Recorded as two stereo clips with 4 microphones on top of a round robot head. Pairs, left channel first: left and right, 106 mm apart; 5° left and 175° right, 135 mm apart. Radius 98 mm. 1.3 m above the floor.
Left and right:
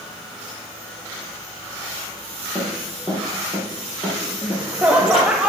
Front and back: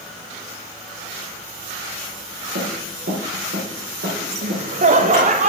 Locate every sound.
2.5 s running footsteps: 175° left, 4.5 m; by 5.3 s 155° left, 5 m
4.4 s laughter: 170° right, 0.7 m